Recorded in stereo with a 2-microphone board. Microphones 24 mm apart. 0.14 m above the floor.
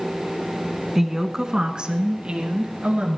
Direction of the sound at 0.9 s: 10° right (ahead or behind).